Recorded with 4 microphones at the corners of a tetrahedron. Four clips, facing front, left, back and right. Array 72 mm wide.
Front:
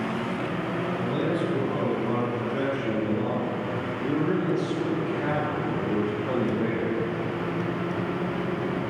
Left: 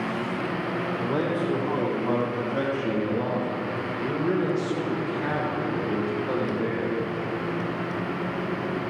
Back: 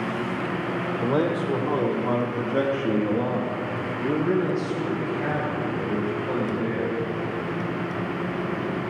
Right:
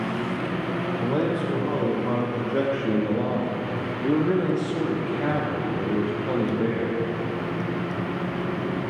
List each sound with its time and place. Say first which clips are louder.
1.0 s a man speaking: right 2 dB, back 5 dB; 160° right, 6 m; by 7.0 s 70° right, 6 m